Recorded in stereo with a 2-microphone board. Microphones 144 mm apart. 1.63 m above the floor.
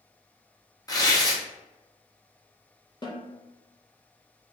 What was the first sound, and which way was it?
Tearing paper, 25° left (ahead or behind).